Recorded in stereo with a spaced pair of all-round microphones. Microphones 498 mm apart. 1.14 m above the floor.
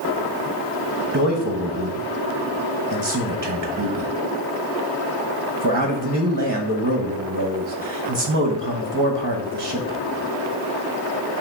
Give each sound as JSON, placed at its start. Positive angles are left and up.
{"t": 1.1, "sound": "a man speaking", "side_deg": -35, "distance_m": 1.1}